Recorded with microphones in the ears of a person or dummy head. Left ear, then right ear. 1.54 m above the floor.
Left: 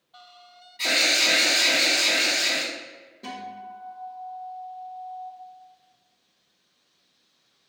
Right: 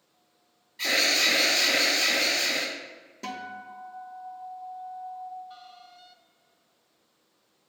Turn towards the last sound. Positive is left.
turn(degrees=-55)  # may be behind; listen again after turning